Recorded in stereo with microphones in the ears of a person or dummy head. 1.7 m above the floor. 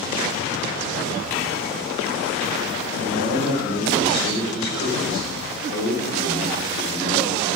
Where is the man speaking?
60° left (ahead or behind), 5.5 m.